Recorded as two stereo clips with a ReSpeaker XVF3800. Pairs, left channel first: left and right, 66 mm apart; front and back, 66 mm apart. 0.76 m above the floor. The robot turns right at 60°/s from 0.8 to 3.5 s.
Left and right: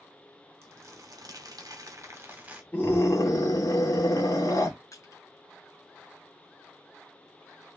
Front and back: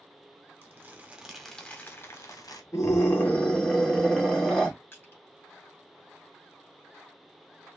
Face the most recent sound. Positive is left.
turn(degrees=55)